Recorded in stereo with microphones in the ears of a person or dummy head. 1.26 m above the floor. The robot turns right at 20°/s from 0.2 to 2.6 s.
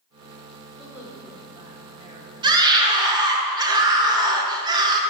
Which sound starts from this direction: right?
A scream, at 2.4 s.